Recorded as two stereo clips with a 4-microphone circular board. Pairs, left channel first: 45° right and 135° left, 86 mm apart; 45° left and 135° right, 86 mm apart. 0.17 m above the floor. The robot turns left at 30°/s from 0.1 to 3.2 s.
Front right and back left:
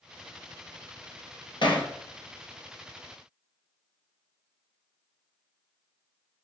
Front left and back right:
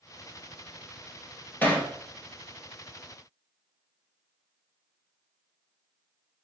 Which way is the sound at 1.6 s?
20° right.